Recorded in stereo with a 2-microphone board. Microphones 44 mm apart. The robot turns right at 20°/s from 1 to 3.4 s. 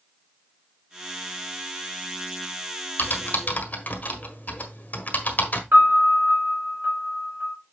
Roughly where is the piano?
Right.